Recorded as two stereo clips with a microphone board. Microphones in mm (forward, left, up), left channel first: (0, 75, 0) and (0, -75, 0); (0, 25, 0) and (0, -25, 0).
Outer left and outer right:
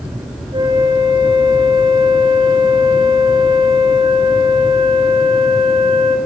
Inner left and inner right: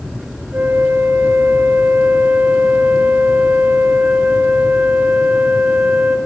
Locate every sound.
0.5 s a flute: 35° right (ahead or behind), 2.5 m